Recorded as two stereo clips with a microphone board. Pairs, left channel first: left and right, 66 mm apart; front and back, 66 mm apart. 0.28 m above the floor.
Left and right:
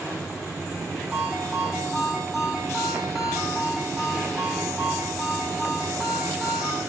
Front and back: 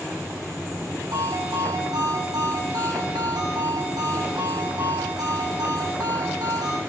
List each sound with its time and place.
1.1 s a ringtone: 175° right, 10 m